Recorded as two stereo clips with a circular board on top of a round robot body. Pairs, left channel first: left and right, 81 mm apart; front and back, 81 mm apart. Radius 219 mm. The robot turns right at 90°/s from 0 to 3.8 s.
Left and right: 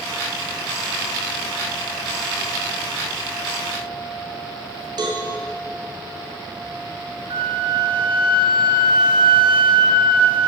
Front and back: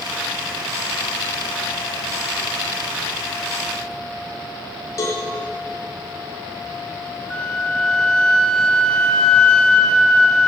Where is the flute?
80° right, 1.6 m.